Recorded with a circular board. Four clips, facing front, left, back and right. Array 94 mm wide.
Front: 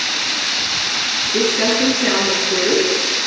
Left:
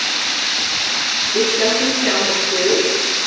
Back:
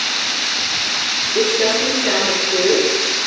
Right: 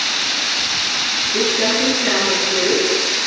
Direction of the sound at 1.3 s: 5° right.